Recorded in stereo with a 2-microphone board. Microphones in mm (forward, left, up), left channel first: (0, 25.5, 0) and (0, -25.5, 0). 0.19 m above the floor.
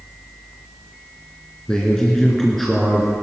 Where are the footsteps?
I don't hear footsteps.